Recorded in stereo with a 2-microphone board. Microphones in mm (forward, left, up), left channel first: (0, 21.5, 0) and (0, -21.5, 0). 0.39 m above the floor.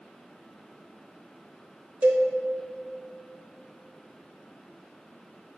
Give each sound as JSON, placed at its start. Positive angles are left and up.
{"t": 2.0, "sound": "a cowbell", "side_deg": -30, "distance_m": 1.3}